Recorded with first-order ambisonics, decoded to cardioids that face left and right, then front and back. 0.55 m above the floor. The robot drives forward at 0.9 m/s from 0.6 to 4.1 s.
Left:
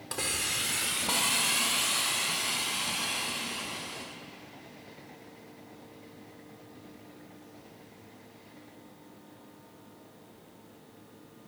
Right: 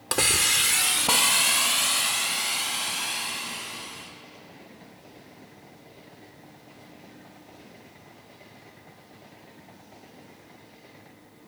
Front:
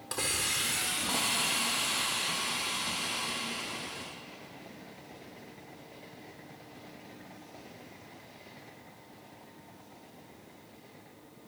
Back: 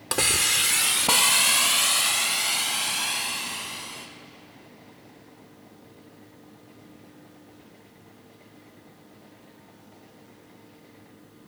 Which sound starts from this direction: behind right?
A hiss, at 0.1 s.